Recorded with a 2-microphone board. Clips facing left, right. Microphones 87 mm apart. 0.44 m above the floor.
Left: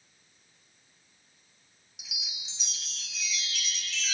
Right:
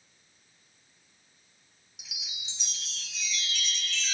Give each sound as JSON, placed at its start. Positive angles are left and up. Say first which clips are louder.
{"t": 2.0, "sound": "a chime", "louder": "left 1 dB", "side_deg": 0, "distance_m": 1.3}